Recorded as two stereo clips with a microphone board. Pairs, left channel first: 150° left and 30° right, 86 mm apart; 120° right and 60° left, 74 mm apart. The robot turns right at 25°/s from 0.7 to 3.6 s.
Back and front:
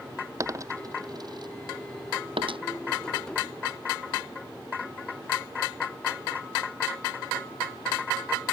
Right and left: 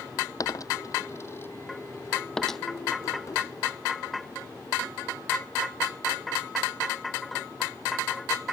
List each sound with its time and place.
0.4 s a dropped coin: 80° right; by 2.6 s 35° right